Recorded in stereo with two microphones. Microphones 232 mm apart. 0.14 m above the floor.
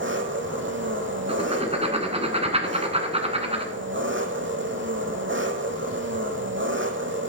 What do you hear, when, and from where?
0.0 s an engine running: 55° right (ahead or behind), 1.6 m
1.3 s writing: 25° right (ahead or behind), 1.8 m